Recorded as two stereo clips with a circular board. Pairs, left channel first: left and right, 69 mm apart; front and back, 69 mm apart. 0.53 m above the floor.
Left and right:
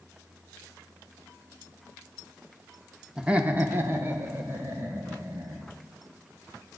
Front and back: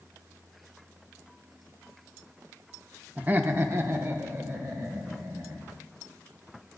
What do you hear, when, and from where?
3.2 s laughter: 160° right, 0.7 m; by 5.7 s 135° right, 2.5 m